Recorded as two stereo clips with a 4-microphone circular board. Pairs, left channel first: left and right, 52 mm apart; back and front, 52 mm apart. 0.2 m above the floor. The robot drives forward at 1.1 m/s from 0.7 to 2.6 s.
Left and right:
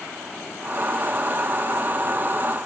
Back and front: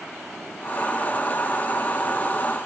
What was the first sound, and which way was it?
Only background noise.